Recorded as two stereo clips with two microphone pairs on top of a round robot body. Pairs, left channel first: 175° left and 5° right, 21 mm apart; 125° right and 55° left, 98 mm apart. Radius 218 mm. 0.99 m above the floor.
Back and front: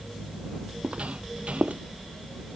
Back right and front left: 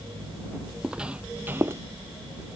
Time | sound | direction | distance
0.8 | footsteps | 25° right | ?